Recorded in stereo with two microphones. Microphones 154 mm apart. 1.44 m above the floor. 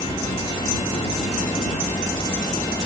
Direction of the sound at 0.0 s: 30° left (ahead or behind).